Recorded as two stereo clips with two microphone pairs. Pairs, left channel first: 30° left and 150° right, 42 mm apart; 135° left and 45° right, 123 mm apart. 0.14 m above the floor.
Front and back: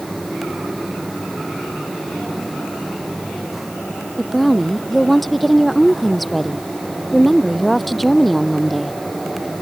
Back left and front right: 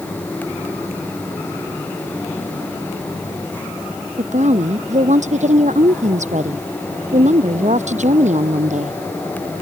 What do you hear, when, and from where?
4.2 s a woman speaking: 55° right